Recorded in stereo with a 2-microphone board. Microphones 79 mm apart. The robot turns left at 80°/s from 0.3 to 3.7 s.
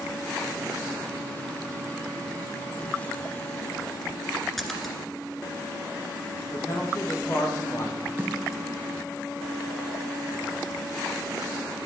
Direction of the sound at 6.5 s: 40° left (ahead or behind).